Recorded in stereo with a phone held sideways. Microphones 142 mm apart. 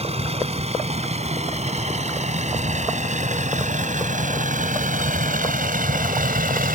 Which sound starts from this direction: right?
A vehicle, at 0.0 s.